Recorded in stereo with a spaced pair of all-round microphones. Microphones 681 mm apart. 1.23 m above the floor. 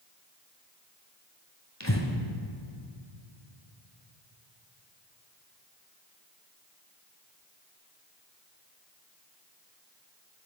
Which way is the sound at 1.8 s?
25° left (ahead or behind).